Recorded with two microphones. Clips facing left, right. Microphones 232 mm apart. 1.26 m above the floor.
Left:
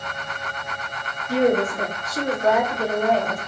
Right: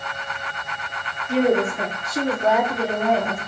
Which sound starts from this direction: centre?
A woman speaking, at 1.3 s.